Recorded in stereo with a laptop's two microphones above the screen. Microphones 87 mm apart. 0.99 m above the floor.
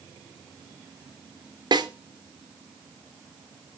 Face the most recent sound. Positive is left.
turn(degrees=-55)  # may be behind; listen again after turning